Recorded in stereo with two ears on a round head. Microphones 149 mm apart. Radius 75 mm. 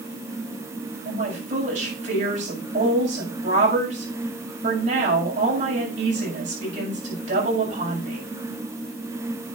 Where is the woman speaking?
50° right (ahead or behind), 6 m.